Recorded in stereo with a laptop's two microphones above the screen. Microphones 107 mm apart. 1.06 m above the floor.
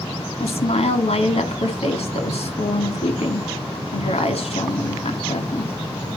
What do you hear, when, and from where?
0.4 s a woman speaking: 75° left (ahead or behind), 2.5 m